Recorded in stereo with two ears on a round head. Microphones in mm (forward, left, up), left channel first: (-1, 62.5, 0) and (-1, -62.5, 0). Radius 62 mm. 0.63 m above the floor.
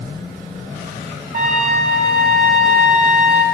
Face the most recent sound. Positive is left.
turn(degrees=-70)  # may be behind; listen again after turning